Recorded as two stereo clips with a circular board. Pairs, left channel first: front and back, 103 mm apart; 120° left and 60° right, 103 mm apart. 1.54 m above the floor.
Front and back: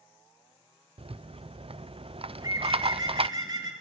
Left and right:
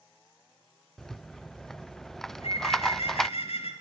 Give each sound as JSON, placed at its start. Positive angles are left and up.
{"t": 1.0, "sound": "a rattle", "azimuth_deg": -155, "distance_m": 0.6}
{"t": 2.3, "sound": "a bird", "azimuth_deg": 130, "distance_m": 4.0}